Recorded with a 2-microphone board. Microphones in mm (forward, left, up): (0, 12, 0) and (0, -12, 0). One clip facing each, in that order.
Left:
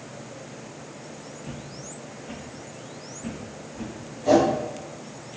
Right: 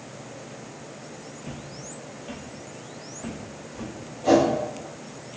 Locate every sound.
1.4 s footsteps: 30° right (ahead or behind), 1.3 m; by 3.9 s 65° right (ahead or behind), 3 m
4.2 s a whoosh: 35° right (ahead or behind), 1.7 m